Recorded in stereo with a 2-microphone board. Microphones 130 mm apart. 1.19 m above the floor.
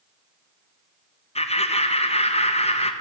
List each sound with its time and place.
1.4 s laughter: 55° left (ahead or behind), 0.8 m